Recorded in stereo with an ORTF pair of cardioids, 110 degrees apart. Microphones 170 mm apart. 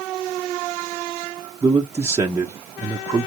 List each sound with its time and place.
1.6 s a man speaking: 15° right, 0.9 m